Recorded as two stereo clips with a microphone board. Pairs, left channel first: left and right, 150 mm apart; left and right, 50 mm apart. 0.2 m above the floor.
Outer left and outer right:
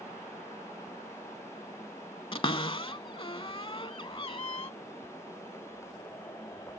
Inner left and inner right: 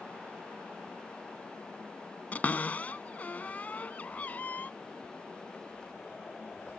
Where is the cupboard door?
35° left (ahead or behind).